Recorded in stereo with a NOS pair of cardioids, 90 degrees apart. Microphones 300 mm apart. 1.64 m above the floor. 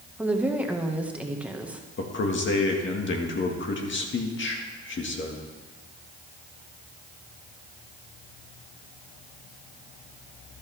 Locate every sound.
0.2 s a woman speaking: 5° right, 1.7 m
2.0 s a man speaking: 40° left, 1.9 m